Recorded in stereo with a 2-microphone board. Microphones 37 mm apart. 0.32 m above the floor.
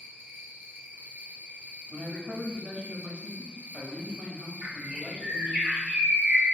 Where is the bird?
40° right (ahead or behind), 1.4 m.